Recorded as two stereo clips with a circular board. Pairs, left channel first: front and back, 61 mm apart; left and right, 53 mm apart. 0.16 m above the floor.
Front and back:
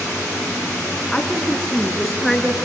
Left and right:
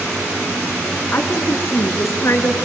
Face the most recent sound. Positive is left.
turn(degrees=90)